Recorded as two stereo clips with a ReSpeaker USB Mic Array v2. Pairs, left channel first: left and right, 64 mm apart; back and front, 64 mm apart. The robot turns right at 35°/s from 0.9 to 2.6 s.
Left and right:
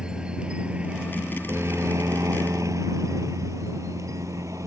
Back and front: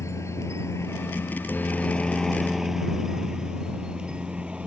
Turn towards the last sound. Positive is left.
turn(degrees=-70)